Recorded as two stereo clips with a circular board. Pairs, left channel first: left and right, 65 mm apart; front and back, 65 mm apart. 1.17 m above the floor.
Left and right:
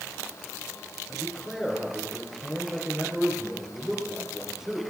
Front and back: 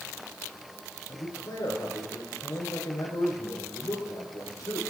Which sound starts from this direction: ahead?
A man speaking, at 1.1 s.